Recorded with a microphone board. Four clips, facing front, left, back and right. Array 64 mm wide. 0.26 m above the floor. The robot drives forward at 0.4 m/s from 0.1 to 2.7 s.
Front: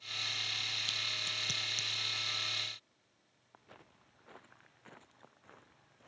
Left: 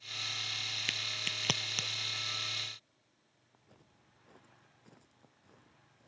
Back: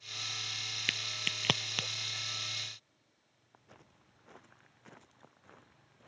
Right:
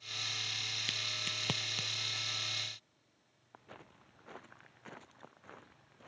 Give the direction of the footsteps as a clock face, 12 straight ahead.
3 o'clock.